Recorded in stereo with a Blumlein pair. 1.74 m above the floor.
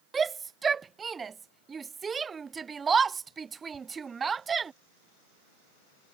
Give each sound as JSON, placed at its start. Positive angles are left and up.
{"t": 0.1, "sound": "a shout", "azimuth_deg": -15}